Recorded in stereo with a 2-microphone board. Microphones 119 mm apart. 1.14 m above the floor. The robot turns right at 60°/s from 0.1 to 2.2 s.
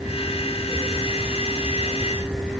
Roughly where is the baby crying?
No baby crying in this recording.